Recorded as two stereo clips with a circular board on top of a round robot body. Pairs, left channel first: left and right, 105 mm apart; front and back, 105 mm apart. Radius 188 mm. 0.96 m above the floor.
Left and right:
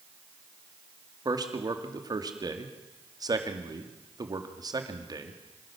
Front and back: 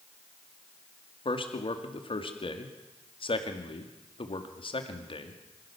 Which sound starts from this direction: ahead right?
A man speaking, at 1.2 s.